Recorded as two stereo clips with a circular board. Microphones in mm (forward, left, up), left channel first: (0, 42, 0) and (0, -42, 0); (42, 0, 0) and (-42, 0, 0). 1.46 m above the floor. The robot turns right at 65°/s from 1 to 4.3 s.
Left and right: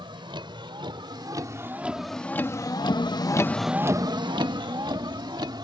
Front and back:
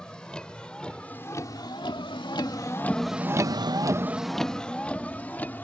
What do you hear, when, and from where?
0.0 s a vehicle: 80° right; by 5.7 s 65° right